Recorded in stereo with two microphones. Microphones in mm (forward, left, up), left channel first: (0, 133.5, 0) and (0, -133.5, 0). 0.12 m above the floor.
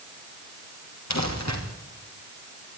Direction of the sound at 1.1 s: 90° left.